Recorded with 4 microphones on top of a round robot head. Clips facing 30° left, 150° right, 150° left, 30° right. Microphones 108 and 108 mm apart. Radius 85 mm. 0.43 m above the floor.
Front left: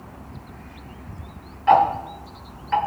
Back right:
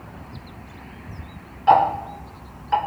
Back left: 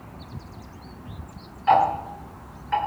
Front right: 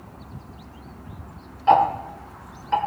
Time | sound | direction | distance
1.7 | ticking | 85° right | 1.8 m